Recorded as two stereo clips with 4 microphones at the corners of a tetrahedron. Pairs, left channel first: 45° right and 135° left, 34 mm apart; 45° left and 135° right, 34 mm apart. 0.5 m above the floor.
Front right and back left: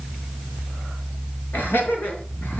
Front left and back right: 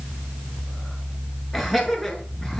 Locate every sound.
1.5 s laughter: 40° right, 5 m; by 2.6 s 35° right, 4.5 m